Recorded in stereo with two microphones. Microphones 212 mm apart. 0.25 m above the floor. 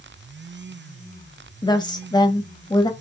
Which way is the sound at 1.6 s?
20° left (ahead or behind).